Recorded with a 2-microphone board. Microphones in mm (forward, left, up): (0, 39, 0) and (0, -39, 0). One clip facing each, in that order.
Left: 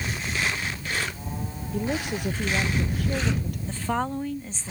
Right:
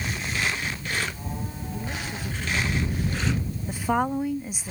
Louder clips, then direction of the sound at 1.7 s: Left 8 dB; 70° left (ahead or behind).